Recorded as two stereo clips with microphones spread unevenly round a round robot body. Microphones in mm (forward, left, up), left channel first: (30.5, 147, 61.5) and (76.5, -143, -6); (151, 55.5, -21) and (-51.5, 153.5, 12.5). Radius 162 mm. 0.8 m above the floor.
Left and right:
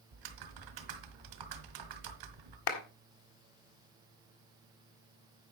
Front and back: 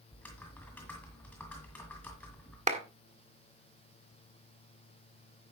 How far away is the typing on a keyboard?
About 1.5 m.